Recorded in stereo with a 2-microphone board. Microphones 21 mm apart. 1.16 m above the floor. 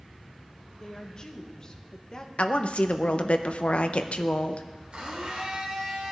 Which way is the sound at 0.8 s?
30° left (ahead or behind).